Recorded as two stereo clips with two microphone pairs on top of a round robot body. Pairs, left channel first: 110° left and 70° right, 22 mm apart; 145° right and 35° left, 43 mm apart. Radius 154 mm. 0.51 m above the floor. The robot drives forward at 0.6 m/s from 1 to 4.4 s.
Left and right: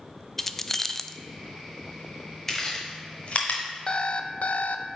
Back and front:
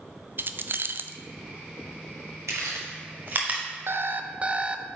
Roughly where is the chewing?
Ahead left.